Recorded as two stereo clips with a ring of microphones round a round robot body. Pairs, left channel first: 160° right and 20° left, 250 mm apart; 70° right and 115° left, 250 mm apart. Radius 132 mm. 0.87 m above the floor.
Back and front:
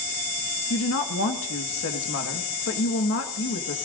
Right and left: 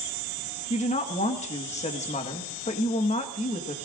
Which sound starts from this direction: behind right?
A woman speaking, at 0.7 s.